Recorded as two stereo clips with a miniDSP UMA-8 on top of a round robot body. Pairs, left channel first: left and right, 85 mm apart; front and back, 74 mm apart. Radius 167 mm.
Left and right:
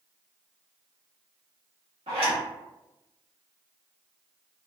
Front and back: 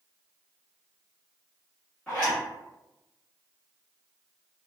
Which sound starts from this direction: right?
A zipper, at 2.1 s.